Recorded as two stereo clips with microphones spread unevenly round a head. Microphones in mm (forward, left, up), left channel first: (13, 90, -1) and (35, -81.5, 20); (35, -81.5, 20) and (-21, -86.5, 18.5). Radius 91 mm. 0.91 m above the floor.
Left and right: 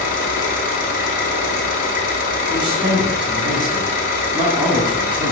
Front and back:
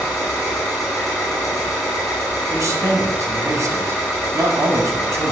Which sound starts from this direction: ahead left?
An engine running, at 0.0 s.